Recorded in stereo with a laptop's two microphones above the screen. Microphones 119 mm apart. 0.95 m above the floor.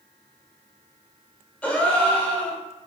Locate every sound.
1.6 s a gasp: 15° left (ahead or behind), 0.7 m